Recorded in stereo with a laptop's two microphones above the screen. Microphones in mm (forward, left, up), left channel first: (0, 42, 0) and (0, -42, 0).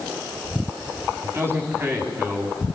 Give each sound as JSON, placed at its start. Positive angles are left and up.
{"t": 1.2, "sound": "a man speaking", "side_deg": -25, "distance_m": 9.5}